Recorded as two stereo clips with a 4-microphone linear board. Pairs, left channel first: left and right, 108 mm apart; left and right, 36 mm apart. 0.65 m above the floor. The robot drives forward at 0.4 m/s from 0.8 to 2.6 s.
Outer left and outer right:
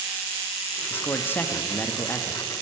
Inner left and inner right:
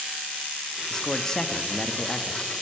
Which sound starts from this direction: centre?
A man speaking, at 0.9 s.